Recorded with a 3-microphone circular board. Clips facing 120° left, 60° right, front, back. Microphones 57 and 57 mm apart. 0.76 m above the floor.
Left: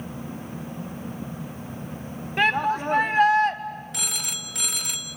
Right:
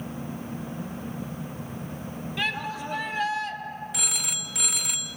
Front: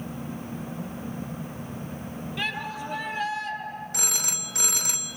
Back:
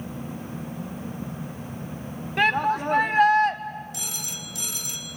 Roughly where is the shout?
Behind.